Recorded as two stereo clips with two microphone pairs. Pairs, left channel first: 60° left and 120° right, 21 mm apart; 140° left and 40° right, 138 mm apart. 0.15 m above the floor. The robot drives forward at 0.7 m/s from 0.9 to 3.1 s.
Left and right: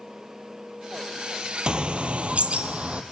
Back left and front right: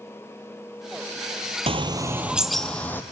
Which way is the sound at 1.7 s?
80° right.